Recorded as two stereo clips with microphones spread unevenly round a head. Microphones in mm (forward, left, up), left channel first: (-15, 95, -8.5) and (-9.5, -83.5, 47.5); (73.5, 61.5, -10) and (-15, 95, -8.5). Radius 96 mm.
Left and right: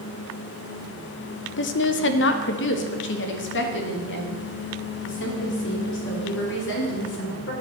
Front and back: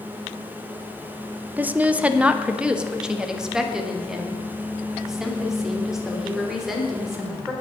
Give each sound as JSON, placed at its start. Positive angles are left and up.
{"t": 1.6, "sound": "a woman speaking", "azimuth_deg": 85, "distance_m": 0.8}